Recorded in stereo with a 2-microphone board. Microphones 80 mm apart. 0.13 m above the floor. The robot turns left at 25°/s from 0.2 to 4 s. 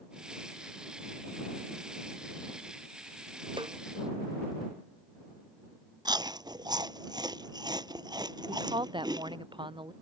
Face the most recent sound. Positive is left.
turn(degrees=-80)